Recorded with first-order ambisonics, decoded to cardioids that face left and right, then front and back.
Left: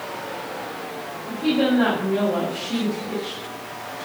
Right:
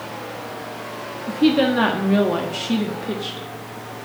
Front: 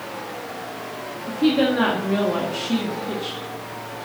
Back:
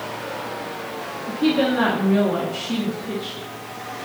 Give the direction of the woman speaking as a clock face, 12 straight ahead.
3 o'clock.